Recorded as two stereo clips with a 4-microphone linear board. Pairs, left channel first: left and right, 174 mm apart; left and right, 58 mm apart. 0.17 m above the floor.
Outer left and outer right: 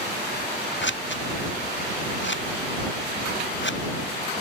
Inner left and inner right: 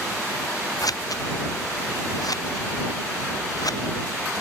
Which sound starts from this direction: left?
Scissors, at 0.8 s.